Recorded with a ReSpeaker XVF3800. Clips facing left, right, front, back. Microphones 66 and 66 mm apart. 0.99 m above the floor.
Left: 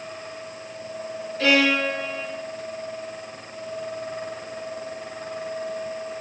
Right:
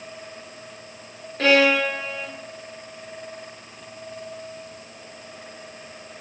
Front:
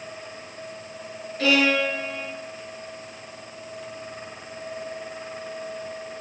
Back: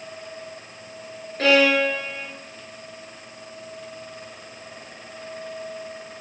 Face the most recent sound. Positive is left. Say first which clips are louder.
# right 2 dB, back 3 dB
turn(degrees=-135)